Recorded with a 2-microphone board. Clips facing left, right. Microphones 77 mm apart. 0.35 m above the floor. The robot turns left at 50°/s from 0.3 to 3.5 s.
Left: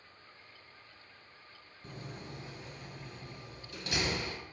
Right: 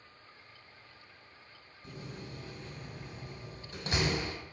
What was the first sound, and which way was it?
A door slam, 45° left (ahead or behind).